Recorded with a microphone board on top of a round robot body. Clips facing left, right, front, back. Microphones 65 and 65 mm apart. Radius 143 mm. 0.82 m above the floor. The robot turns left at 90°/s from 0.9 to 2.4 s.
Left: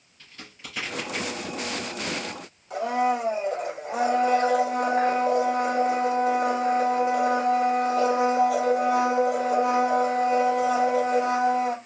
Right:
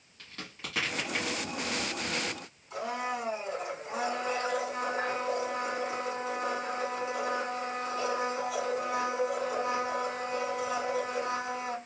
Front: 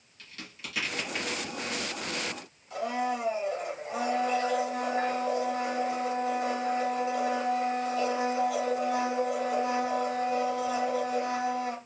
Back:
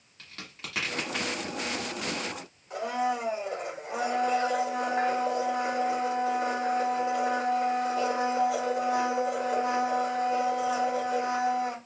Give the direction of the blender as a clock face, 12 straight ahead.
8 o'clock.